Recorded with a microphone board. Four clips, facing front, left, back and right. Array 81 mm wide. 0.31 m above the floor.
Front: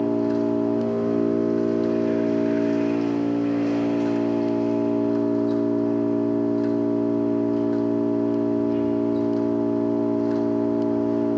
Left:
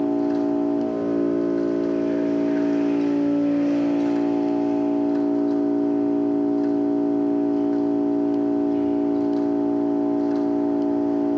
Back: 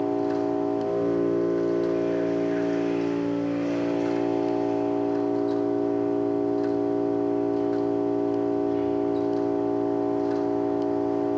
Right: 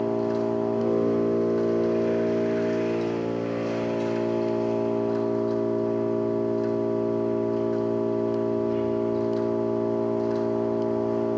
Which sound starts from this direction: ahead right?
An engine running, at 0.0 s.